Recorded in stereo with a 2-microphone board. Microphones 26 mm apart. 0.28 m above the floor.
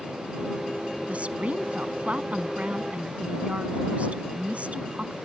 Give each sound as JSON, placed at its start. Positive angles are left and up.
{"t": 1.1, "sound": "a woman speaking", "side_deg": -60}